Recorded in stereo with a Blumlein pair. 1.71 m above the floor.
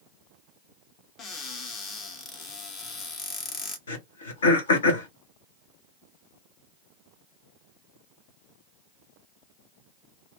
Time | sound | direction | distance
1.2 | a cupboard door | 30° left | 1.1 m
3.9 | throat clearing | 65° left | 1.2 m